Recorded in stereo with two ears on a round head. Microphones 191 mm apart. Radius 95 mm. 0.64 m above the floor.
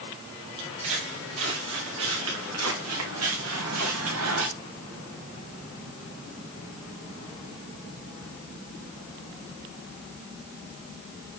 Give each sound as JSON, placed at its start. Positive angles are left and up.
{"t": 0.6, "sound": "footsteps", "side_deg": -60, "distance_m": 5.0}